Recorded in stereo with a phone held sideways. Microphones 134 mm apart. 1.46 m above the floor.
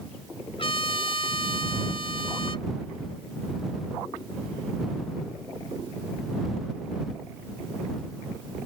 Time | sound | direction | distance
0.6 | a trumpet | 40° left (ahead or behind) | ?